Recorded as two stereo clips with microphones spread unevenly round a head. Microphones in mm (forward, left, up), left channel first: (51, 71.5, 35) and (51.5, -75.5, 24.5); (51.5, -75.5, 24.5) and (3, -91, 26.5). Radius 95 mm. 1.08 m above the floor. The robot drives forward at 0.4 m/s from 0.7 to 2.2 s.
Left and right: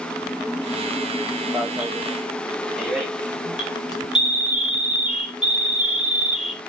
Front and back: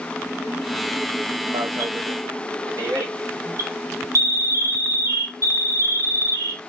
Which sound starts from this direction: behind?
An alarm, at 1.5 s.